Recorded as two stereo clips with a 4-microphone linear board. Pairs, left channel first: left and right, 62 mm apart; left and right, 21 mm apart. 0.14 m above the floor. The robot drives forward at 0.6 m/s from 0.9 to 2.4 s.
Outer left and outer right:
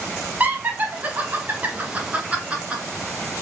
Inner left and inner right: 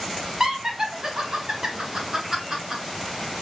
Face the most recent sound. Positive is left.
turn(degrees=-20)  # may be behind; listen again after turning